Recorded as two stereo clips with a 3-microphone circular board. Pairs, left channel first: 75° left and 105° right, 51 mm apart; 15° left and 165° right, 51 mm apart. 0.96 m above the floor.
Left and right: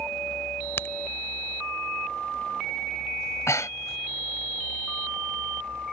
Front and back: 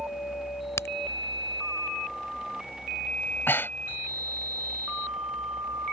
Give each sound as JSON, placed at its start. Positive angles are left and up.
{"t": 0.8, "sound": "a crack", "azimuth_deg": 35}
{"t": 3.2, "sound": "breathing", "azimuth_deg": 60}